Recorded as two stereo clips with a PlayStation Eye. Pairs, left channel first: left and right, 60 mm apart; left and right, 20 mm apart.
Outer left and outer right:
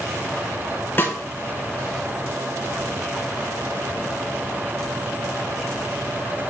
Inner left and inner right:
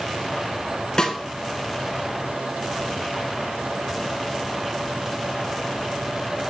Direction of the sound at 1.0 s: 35° left (ahead or behind).